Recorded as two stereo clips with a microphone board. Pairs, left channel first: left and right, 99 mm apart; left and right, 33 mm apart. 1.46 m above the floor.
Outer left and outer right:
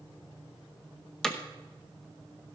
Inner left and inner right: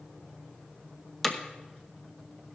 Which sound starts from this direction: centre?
Hammering, at 1.2 s.